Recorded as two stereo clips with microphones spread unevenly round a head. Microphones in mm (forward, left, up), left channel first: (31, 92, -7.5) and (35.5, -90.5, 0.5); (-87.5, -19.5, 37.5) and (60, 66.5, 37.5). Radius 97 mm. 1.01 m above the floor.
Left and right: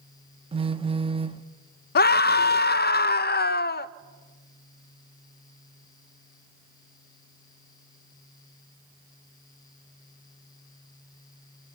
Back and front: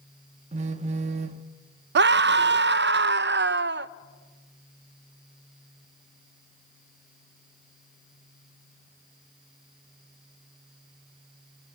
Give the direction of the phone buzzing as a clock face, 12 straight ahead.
1 o'clock.